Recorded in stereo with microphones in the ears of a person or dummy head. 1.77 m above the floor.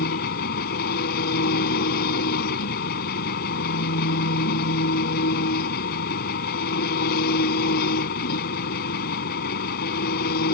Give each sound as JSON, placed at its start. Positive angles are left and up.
{"t": 0.0, "sound": "an engine running", "side_deg": 50}